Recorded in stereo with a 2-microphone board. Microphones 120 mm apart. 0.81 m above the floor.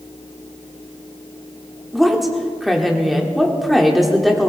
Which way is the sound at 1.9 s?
Centre (ahead or behind).